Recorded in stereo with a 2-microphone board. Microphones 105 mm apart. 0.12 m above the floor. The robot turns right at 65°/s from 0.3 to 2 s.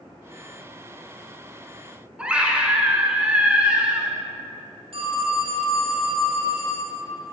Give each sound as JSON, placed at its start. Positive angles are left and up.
{"t": 2.2, "sound": "a scream", "side_deg": -10, "distance_m": 1.2}
{"t": 4.9, "sound": "a phone ringing", "side_deg": -60, "distance_m": 2.5}